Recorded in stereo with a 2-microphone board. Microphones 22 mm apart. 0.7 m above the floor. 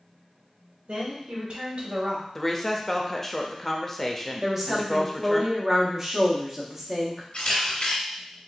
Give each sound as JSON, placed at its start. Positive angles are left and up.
{"t": 0.9, "sound": "a woman speaking", "side_deg": -75, "distance_m": 2.5}
{"t": 2.4, "sound": "a woman speaking", "side_deg": 15, "distance_m": 0.6}
{"t": 4.4, "sound": "a woman speaking", "side_deg": -15, "distance_m": 1.2}
{"t": 7.3, "sound": "a camera shutter", "side_deg": 65, "distance_m": 1.7}